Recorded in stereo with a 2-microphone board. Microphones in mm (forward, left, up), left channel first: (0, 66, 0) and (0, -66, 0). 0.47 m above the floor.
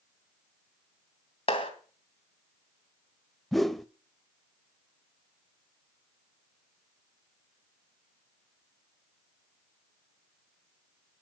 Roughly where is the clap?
Left.